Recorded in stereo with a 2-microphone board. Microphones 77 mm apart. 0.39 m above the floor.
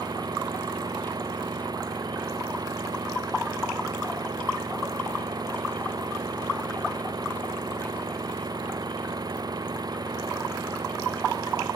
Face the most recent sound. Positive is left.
turn(degrees=-55)  # may be behind; listen again after turning